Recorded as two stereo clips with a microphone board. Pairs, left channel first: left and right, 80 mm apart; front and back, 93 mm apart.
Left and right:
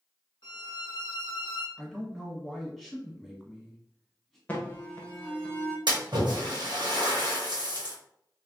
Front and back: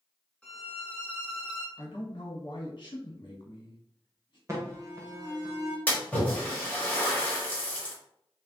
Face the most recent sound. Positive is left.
turn(degrees=-75)